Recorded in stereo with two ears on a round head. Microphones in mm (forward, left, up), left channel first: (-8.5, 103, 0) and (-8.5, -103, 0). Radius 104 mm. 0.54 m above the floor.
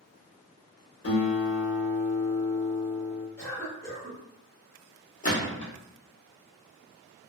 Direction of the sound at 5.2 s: 35° left (ahead or behind).